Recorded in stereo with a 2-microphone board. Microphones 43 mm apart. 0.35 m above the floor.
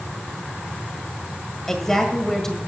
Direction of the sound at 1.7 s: 10° left (ahead or behind).